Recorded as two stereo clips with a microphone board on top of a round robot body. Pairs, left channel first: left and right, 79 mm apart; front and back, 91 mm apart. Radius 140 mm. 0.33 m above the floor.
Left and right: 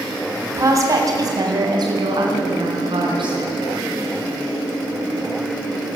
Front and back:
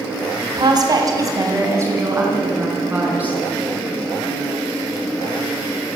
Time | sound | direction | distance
0.5 | a woman speaking | 145° right | 2.5 m